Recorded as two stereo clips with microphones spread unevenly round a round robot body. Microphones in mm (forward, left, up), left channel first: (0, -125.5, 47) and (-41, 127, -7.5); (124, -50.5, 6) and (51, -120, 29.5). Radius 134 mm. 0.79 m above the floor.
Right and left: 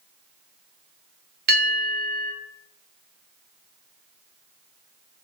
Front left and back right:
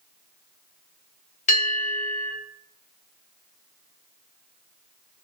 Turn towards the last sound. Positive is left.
turn(degrees=40)